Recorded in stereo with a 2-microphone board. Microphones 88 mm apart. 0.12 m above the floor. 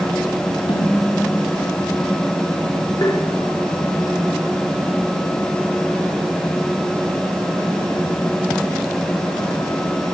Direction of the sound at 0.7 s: 85° left.